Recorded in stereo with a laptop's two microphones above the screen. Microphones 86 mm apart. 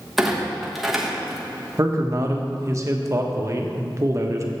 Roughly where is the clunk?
Centre.